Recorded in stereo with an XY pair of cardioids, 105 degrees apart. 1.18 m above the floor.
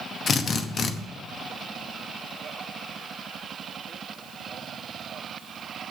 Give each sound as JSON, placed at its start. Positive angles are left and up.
{"t": 0.3, "sound": "a drill", "azimuth_deg": 50, "distance_m": 0.9}